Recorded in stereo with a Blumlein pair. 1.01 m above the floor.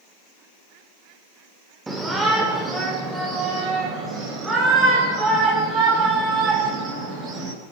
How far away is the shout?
About 2.5 m.